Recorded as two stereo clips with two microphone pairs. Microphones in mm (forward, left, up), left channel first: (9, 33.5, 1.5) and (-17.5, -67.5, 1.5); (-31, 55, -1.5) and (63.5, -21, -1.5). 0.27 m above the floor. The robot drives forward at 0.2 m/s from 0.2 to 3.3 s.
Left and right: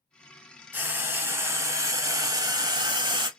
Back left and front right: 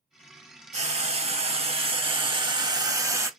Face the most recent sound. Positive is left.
turn(degrees=-95)